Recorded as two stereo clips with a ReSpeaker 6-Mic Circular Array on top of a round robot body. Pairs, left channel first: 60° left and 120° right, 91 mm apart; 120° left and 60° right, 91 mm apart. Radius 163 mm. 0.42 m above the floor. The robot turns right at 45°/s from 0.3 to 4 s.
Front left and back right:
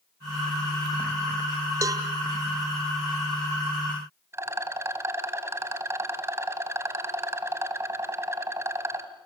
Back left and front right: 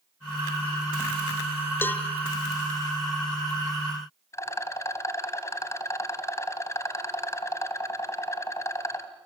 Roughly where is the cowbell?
Behind.